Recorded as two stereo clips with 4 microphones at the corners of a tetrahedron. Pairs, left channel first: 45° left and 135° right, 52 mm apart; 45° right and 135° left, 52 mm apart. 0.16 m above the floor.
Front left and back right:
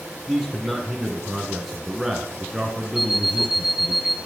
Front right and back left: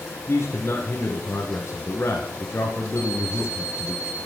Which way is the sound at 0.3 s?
55° right.